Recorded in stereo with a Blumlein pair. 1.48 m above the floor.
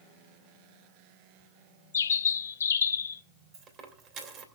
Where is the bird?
65° left, 0.8 m.